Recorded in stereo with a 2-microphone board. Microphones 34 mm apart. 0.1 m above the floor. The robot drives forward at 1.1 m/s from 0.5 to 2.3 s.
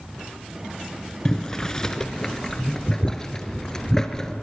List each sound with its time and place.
1.2 s boiling: 20° left (ahead or behind), 1.4 m; by 4.3 s 15° left (ahead or behind), 1.7 m